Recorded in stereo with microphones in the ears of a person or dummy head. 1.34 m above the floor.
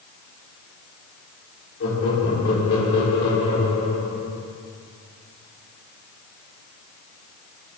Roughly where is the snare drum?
I don't hear a snare drum.